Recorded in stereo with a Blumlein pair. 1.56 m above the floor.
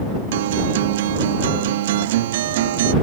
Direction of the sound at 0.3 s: 55° right.